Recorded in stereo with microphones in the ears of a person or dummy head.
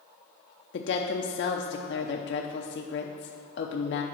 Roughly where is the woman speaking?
Left.